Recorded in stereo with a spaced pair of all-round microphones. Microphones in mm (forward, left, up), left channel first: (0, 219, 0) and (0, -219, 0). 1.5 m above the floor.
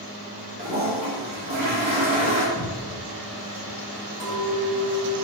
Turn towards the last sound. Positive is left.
turn(degrees=-65)  # may be behind; listen again after turning